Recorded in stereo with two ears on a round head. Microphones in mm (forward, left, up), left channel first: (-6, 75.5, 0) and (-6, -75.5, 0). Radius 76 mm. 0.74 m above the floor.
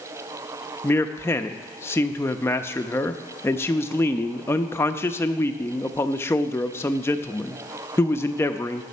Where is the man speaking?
15° left (ahead or behind), 0.5 m.